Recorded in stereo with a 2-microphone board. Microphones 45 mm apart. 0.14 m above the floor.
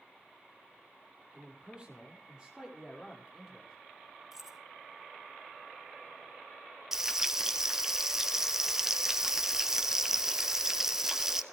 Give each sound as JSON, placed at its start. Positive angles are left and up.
{"t": 1.3, "sound": "a man speaking", "side_deg": -25, "distance_m": 5.5}
{"t": 4.3, "sound": "keys jangling", "side_deg": -10, "distance_m": 2.5}
{"t": 6.9, "sound": "frying", "side_deg": -10, "distance_m": 1.1}